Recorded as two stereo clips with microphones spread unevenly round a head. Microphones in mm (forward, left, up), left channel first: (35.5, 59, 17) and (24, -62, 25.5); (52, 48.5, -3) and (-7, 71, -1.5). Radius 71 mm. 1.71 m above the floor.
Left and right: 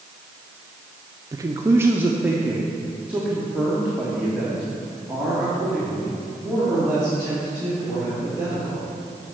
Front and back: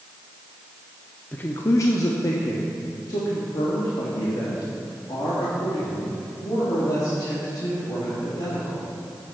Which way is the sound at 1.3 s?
70° right.